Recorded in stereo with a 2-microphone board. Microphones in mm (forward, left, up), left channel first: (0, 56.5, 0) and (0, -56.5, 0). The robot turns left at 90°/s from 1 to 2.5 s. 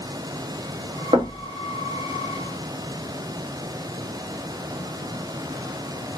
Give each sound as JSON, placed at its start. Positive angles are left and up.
{"t": 1.1, "sound": "knocking", "side_deg": -60, "distance_m": 1.2}